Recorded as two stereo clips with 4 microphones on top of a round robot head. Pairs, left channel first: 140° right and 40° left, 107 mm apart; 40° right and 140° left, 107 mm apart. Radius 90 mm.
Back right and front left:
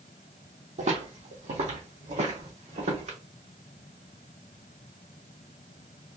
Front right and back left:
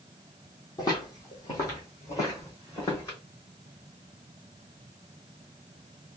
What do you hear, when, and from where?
0.8 s footsteps: 15° left, 1.7 m; by 3.2 s 25° left, 3 m